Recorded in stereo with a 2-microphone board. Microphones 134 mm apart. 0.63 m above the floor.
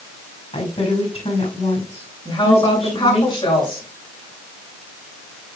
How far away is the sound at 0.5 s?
About 5 m.